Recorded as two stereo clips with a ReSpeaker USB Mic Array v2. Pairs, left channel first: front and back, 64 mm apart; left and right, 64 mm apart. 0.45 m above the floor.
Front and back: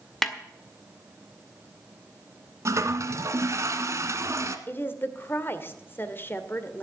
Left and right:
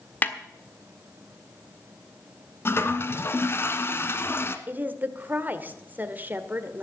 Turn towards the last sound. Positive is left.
turn(degrees=-40)